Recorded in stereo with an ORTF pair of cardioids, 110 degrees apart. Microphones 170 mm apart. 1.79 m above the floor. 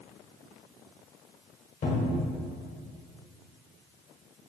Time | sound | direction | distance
1.8 | a cupboard door | 55° left | 0.9 m